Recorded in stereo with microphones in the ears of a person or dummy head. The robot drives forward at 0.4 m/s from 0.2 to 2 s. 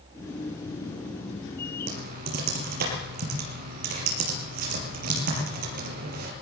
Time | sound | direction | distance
1.9 | typing on a keyboard | 60° right (ahead or behind) | 6 m